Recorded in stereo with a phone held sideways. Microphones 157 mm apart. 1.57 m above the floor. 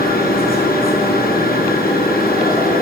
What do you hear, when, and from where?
0.0 s a machine running: 75° left (ahead or behind), 4.5 m